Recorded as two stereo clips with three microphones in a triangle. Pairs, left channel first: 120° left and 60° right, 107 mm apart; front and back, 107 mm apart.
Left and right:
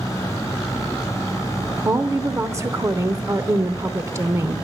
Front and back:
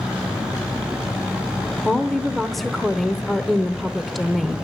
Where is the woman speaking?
90° right, 0.8 m.